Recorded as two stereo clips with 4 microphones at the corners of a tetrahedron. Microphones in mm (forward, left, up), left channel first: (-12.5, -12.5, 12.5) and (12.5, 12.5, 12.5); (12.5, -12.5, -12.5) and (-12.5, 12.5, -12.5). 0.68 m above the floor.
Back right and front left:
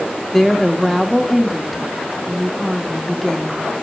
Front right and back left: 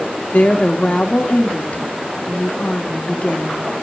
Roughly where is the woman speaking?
Ahead right.